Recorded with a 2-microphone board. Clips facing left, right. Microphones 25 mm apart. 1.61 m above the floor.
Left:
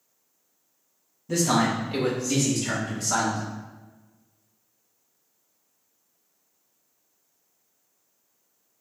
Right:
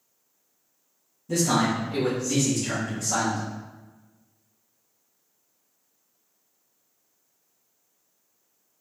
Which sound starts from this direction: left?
A man speaking, at 1.3 s.